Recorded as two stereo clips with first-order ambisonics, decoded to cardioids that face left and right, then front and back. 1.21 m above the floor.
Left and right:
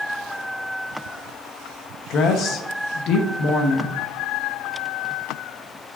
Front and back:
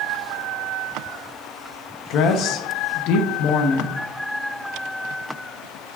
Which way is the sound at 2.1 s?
40° left.